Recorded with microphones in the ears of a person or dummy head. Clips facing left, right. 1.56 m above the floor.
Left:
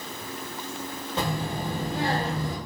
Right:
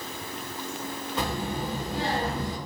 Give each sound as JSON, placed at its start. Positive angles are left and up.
{"t": 1.2, "sound": "a child speaking", "side_deg": 25, "distance_m": 1.1}